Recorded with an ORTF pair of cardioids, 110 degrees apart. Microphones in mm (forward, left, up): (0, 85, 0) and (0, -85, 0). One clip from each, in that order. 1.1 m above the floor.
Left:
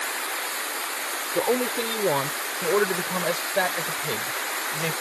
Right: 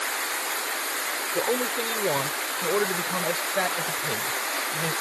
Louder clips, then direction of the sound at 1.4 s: Left 3 dB; 25° left.